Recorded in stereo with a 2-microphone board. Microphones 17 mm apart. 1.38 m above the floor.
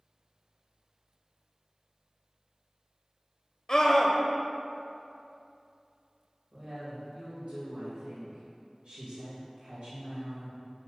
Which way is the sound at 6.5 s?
85° right.